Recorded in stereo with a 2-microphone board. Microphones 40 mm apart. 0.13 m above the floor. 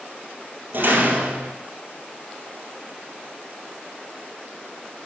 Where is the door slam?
50° right (ahead or behind), 2 m.